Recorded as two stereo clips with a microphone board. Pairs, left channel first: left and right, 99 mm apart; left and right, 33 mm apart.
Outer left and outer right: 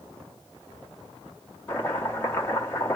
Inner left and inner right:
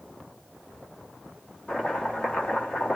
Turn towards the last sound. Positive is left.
turn(degrees=25)  # may be behind; listen again after turning